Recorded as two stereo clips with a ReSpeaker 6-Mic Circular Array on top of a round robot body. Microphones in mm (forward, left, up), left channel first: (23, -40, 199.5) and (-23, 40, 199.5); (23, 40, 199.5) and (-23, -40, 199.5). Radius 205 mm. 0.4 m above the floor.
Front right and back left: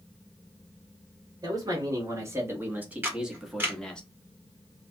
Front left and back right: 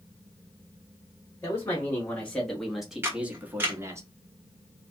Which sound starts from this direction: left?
A man speaking, at 1.4 s.